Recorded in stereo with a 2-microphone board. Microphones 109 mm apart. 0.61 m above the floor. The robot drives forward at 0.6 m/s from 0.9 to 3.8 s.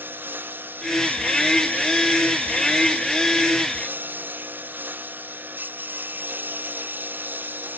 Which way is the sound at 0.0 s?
20° right (ahead or behind).